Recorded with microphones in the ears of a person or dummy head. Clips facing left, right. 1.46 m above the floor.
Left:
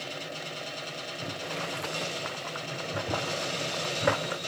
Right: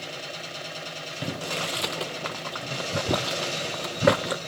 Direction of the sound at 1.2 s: 45° right (ahead or behind).